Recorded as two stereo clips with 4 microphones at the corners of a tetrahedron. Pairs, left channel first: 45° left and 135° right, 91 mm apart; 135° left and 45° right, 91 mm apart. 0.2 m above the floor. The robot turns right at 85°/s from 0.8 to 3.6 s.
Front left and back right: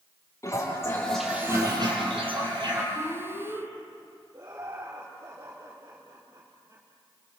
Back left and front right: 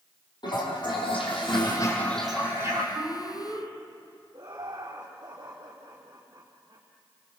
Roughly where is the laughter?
Right.